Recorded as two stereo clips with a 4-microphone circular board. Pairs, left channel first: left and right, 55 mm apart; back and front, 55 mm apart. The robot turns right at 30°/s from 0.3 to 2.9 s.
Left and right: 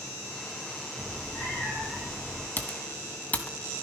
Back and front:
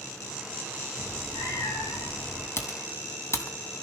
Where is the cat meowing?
130° left, 6.5 m; by 2.5 s 175° left, 6.5 m.